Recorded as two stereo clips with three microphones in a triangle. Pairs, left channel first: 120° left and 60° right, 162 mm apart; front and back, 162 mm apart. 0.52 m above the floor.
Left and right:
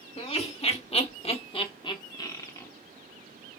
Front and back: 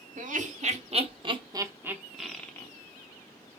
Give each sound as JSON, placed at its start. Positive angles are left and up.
{"t": 0.2, "sound": "laughter", "azimuth_deg": 160, "distance_m": 1.5}